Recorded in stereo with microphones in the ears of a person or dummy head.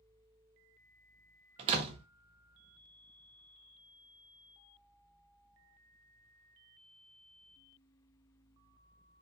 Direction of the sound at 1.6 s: 35° right (ahead or behind).